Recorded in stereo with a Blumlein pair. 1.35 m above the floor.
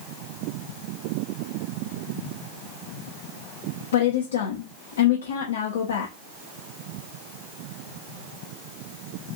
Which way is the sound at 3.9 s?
65° left.